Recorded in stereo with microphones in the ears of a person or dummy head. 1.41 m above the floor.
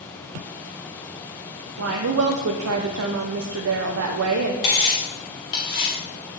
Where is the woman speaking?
85° right, 0.6 m.